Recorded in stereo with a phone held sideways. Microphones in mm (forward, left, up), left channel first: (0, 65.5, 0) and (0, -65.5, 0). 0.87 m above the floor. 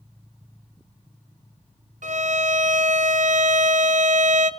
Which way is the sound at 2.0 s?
70° right (ahead or behind).